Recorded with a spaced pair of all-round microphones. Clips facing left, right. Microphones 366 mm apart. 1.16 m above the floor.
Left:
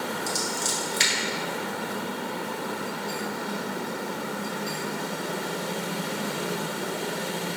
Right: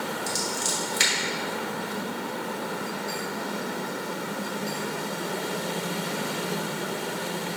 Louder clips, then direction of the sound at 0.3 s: Even; 20° right (ahead or behind).